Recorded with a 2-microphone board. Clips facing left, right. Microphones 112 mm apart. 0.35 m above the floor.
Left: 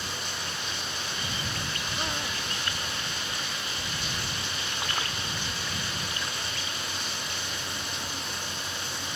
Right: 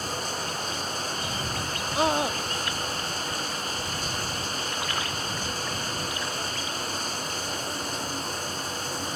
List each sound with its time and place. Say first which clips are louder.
0.0 s running water: right 5 dB; 40° right (ahead or behind)
1.9 s a scream: right 13 dB; 85° right